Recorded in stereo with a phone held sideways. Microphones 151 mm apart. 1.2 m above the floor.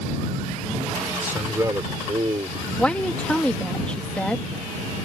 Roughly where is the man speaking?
Centre.